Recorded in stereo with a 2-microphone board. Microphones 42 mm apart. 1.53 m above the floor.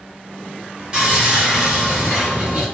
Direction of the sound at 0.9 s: 20° right (ahead or behind).